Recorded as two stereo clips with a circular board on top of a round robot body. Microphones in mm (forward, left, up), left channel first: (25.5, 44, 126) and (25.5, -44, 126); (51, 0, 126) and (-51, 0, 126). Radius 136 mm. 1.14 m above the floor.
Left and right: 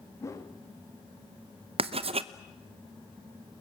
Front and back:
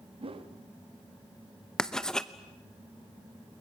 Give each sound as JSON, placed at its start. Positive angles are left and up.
{"t": 0.2, "sound": "a whoosh", "azimuth_deg": 150, "distance_m": 1.6}
{"t": 1.8, "sound": "writing", "azimuth_deg": -85, "distance_m": 0.7}